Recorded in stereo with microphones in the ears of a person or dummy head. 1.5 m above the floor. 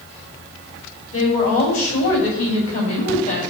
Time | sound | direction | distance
1.1 | a woman speaking | 35° left (ahead or behind) | 6 m